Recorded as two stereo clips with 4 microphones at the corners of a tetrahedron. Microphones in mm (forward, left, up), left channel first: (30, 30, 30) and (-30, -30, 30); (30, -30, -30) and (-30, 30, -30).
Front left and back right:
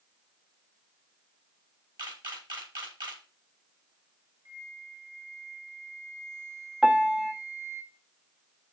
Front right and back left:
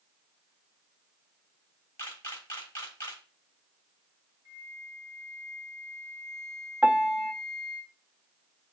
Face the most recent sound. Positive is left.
turn(degrees=170)